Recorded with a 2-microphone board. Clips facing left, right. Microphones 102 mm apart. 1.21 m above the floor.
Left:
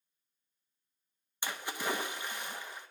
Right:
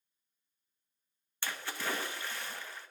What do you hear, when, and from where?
1.4 s a splash: 15° left (ahead or behind), 0.7 m